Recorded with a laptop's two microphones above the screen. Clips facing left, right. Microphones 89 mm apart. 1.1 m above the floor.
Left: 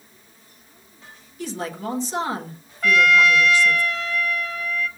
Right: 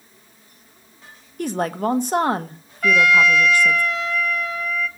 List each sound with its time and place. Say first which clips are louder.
1.4 s a woman speaking: right 7 dB; 55° right (ahead or behind), 0.9 m
2.8 s a trumpet: right 1 dB; centre (ahead or behind), 1.8 m